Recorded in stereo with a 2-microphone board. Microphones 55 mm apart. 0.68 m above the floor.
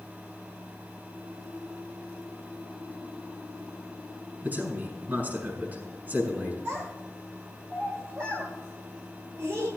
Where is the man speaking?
35° right (ahead or behind), 6.5 m.